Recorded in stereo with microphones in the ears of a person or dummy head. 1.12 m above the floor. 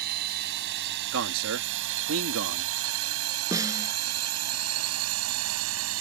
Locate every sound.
0.0 s a drone: 50° right (ahead or behind); by 6.0 s 75° right (ahead or behind)
1.1 s a man speaking: 75° right (ahead or behind)
3.5 s a snare drum: 20° right (ahead or behind)